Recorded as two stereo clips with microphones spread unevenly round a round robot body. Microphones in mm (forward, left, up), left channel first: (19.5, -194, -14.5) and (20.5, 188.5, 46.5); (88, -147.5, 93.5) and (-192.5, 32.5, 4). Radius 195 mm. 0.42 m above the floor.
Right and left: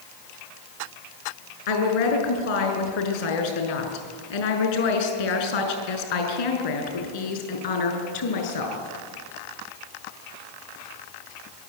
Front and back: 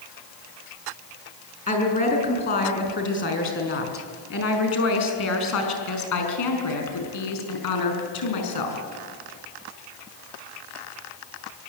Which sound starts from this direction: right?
A woman speaking, at 1.7 s.